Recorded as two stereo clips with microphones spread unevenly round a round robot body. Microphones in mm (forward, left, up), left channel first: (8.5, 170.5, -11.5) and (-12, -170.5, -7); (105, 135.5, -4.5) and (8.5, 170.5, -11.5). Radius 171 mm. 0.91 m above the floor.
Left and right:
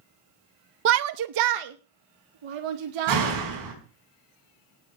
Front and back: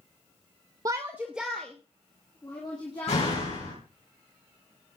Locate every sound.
0.8 s a shout: 145° right, 0.5 m; by 3.4 s 95° right, 2 m
3.1 s a door slam: 55° right, 5 m